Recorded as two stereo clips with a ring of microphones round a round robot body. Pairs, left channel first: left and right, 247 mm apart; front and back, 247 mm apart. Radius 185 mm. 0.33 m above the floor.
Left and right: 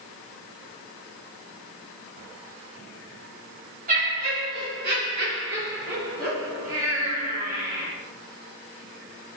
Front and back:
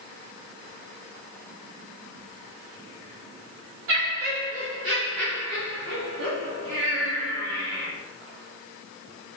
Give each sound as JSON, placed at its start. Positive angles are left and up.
{"t": 3.9, "sound": "laughter", "azimuth_deg": -150, "distance_m": 2.5}